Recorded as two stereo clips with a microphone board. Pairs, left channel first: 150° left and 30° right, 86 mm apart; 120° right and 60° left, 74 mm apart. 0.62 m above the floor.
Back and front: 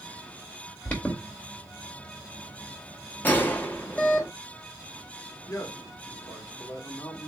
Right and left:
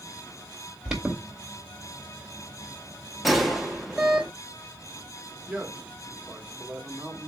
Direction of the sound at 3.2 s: 150° left.